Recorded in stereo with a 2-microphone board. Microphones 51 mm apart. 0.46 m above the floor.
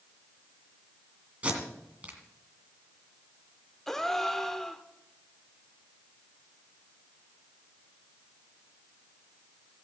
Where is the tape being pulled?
30° right (ahead or behind), 2 m.